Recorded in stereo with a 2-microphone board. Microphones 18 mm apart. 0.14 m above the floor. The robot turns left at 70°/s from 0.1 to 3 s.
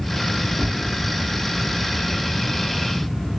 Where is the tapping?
5° left (ahead or behind), 1.3 m; by 0.8 s 15° left (ahead or behind), 1.3 m.